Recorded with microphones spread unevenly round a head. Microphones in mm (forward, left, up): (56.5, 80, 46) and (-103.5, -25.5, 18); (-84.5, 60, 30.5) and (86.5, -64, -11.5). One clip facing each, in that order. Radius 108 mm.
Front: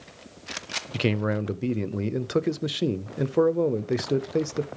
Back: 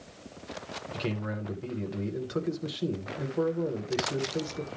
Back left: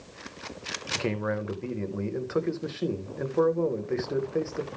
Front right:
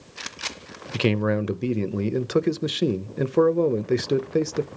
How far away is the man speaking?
About 0.5 m.